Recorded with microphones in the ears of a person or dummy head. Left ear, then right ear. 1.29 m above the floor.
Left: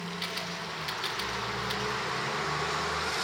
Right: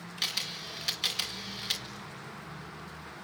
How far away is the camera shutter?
About 2.5 m.